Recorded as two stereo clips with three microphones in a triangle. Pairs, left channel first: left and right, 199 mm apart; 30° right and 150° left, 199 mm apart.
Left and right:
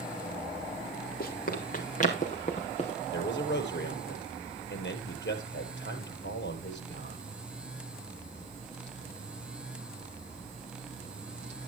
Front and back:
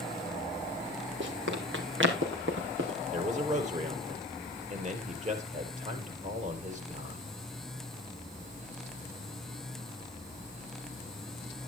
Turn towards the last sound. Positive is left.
turn(degrees=100)